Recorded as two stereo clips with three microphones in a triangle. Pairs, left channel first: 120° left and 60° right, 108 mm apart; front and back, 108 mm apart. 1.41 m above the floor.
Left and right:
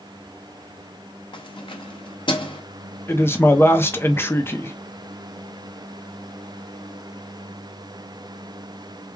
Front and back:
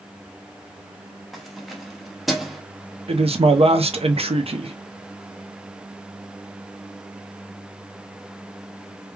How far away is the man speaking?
About 0.6 m.